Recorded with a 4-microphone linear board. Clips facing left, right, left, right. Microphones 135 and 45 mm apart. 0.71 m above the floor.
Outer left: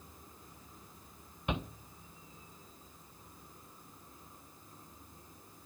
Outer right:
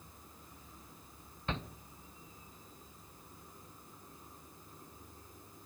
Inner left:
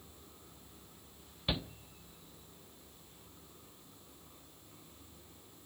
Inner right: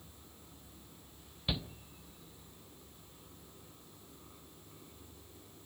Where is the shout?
15° left (ahead or behind), 0.5 m.